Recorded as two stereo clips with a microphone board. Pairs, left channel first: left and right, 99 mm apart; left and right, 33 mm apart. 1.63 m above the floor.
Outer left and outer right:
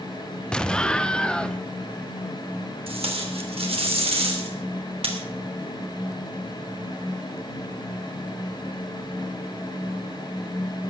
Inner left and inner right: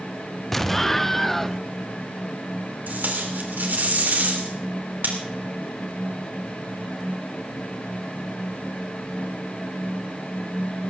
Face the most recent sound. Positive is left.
turn(degrees=-70)  # may be behind; listen again after turning